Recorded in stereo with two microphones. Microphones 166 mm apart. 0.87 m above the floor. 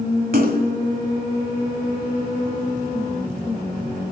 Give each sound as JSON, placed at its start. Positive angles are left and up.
{"t": 0.3, "sound": "a splash", "side_deg": -65, "distance_m": 1.4}